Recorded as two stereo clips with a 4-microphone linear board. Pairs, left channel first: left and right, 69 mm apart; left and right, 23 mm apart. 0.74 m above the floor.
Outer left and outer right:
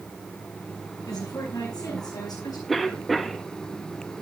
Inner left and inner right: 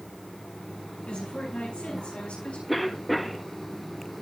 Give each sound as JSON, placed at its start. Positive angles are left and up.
{"t": 1.0, "sound": "a woman speaking", "side_deg": 60, "distance_m": 9.5}
{"t": 2.7, "sound": "a cough", "side_deg": 0, "distance_m": 1.2}